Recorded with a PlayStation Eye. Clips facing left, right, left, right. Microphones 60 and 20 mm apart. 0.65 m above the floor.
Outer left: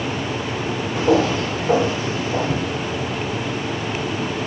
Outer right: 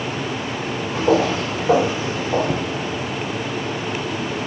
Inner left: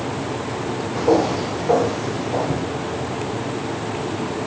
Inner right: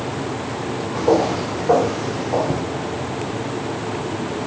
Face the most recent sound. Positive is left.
turn(degrees=-45)  # may be behind; listen again after turning